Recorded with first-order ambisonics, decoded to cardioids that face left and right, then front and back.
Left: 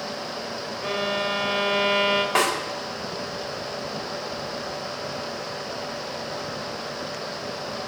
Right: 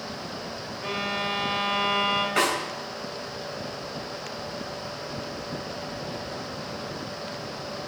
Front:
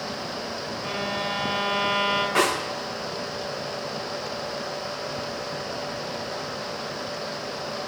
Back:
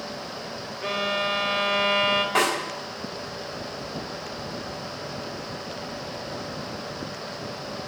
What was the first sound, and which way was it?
A violin, 145° left.